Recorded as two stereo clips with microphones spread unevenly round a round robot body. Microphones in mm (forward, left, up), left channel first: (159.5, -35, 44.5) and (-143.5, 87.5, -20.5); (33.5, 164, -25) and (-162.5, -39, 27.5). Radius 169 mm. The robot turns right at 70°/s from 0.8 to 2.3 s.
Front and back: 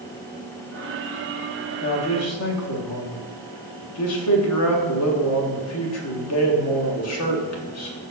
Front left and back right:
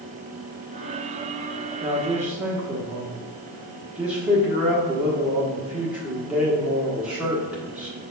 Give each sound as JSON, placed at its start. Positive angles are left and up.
{"t": 1.8, "sound": "a man speaking", "azimuth_deg": -70, "distance_m": 1.2}